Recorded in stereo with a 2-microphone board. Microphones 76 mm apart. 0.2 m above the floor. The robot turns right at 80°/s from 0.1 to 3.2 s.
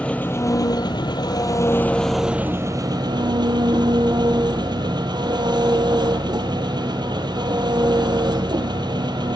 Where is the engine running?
15° left, 1.4 m; by 9.4 s 95° right, 1.4 m.